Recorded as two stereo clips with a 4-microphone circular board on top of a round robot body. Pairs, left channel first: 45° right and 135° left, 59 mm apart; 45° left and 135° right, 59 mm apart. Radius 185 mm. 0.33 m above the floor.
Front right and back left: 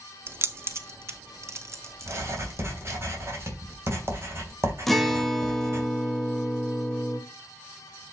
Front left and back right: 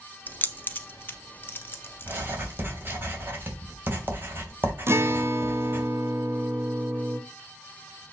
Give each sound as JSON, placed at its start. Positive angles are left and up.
{"t": 0.3, "sound": "keys jangling", "azimuth_deg": 100, "distance_m": 1.0}
{"t": 2.0, "sound": "writing", "azimuth_deg": 175, "distance_m": 3.0}
{"t": 4.9, "sound": "a guitar", "azimuth_deg": -130, "distance_m": 1.2}